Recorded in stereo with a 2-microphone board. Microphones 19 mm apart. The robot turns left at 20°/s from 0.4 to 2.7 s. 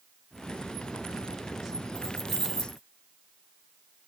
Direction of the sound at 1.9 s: 25° left (ahead or behind).